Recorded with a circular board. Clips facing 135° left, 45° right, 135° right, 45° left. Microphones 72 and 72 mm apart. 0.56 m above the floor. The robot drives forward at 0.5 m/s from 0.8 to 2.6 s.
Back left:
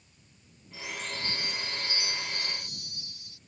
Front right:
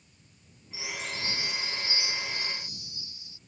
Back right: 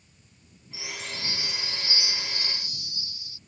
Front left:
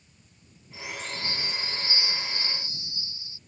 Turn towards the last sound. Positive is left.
turn(degrees=105)